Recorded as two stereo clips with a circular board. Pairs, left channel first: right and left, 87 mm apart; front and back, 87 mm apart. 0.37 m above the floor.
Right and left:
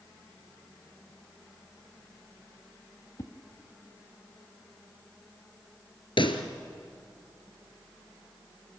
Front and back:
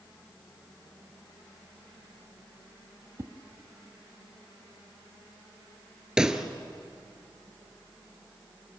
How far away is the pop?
About 1.6 m.